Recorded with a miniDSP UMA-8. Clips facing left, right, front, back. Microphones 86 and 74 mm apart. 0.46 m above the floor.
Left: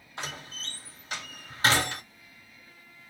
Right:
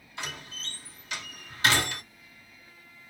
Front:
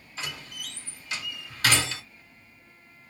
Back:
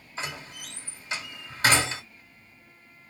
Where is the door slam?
130° left, 1.4 m.